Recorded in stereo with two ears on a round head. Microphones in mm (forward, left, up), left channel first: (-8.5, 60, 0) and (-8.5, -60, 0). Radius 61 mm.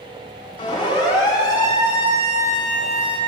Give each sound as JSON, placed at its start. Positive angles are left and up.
{"t": 0.6, "sound": "a siren", "side_deg": 40, "distance_m": 9.0}